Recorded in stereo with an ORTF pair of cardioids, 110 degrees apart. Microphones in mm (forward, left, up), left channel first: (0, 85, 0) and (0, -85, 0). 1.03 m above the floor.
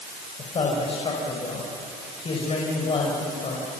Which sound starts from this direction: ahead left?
A man speaking, at 0.4 s.